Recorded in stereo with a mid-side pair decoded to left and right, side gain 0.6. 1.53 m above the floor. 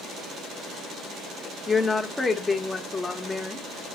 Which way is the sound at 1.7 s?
20° left.